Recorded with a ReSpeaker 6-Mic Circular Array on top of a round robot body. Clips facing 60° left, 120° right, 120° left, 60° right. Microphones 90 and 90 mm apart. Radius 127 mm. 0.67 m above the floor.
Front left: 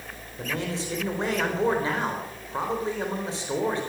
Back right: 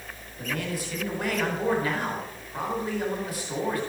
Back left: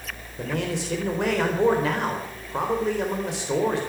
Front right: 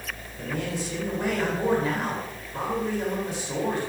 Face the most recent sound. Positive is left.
turn(degrees=125)